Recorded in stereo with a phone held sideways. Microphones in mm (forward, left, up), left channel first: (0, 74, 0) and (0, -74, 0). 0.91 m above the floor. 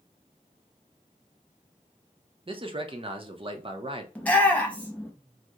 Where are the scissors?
I don't hear scissors.